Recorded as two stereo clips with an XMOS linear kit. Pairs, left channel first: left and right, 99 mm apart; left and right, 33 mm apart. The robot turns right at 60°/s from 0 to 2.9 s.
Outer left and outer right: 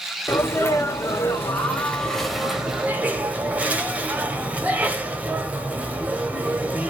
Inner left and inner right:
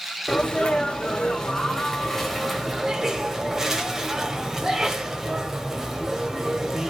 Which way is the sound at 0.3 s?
20° left (ahead or behind).